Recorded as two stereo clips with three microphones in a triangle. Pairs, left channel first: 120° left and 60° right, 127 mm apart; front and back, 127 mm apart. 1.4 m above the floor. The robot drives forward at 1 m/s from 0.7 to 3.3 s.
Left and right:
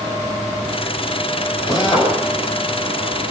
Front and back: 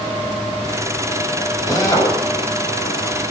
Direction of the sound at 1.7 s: 65° left.